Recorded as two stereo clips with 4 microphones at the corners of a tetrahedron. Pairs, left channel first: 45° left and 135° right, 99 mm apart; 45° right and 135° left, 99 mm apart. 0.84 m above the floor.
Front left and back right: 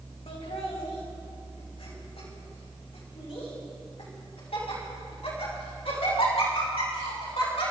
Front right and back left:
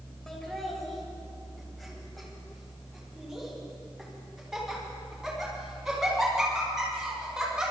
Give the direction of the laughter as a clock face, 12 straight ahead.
11 o'clock.